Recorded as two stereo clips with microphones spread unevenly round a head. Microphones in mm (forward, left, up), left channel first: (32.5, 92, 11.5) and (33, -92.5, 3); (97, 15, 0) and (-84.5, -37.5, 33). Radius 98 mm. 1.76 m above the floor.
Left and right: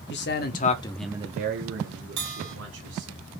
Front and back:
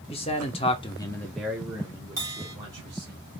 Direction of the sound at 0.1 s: 80° left.